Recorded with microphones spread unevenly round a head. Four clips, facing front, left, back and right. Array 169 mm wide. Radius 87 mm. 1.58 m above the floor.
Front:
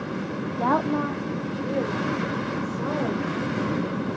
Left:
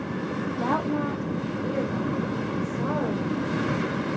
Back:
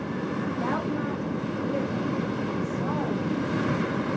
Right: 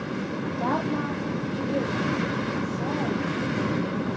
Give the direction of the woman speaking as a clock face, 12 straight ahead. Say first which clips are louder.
Left 1 dB, front 8 dB; 12 o'clock.